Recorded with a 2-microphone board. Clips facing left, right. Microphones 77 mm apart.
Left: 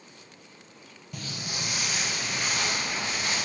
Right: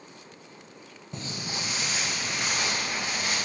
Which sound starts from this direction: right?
Footsteps, at 1.1 s.